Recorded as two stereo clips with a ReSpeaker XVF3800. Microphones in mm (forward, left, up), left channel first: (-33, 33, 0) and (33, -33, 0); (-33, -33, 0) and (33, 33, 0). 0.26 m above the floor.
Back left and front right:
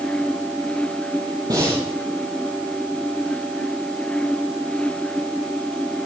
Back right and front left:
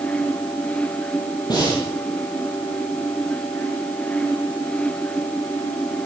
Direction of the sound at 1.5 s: 95° right.